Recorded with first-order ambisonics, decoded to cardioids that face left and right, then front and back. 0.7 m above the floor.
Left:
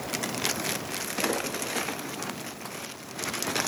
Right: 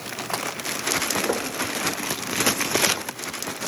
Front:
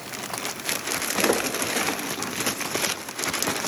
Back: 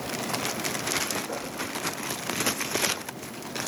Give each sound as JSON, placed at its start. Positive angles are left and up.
{"t": 1.3, "sound": "knocking", "azimuth_deg": -30, "distance_m": 1.9}